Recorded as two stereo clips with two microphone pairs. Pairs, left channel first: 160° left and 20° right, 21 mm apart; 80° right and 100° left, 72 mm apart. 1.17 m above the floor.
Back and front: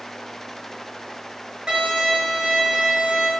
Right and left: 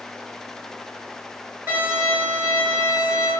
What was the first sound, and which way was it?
A violin, 35° left.